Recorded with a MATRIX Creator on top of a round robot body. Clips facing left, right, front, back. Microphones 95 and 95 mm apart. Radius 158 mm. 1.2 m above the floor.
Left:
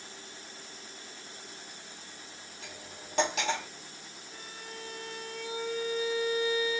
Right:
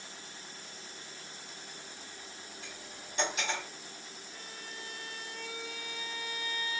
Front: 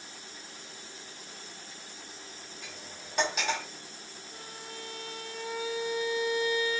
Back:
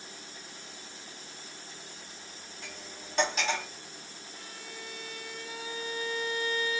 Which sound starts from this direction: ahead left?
A violin, at 4.3 s.